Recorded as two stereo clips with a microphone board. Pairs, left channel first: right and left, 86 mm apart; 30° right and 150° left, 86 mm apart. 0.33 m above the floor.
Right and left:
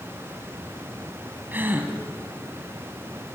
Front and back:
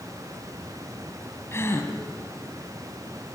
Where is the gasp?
25° left, 2 m.